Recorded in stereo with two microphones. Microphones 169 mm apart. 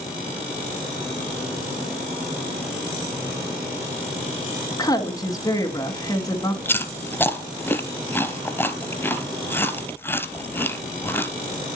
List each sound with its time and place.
4.7 s a woman speaking: 20° left (ahead or behind), 1.2 m
6.7 s chewing: 15° left (ahead or behind), 0.7 m